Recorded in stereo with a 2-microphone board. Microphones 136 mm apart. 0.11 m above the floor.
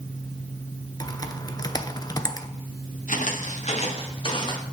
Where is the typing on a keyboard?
30° left (ahead or behind), 0.7 m.